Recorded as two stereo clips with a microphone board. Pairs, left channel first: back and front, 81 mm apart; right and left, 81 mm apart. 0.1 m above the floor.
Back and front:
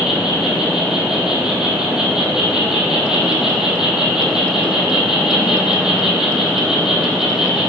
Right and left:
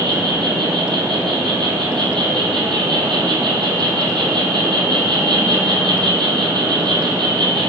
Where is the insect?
85° left, 1.3 m.